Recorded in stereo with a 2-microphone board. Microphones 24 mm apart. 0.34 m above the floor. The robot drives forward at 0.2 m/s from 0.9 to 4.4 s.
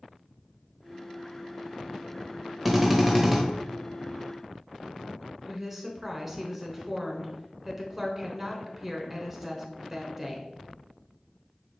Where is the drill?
10° right (ahead or behind), 0.9 m; by 3.4 s 5° right (ahead or behind), 1.0 m.